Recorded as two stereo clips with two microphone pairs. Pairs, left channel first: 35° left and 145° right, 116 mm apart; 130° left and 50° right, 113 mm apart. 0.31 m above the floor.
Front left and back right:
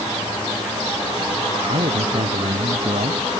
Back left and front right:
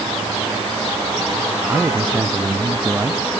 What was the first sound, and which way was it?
A man speaking, 125° right.